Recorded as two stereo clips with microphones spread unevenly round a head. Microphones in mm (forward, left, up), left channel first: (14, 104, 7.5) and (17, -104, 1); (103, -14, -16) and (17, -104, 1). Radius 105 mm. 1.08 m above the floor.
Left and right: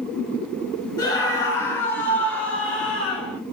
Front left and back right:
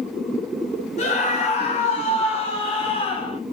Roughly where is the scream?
Ahead.